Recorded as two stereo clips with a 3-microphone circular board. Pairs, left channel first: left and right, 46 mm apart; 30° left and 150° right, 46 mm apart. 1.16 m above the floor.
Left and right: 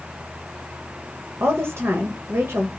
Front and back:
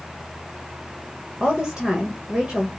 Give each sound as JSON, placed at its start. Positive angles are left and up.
{"t": 1.4, "sound": "a woman speaking", "azimuth_deg": -70, "distance_m": 1.3}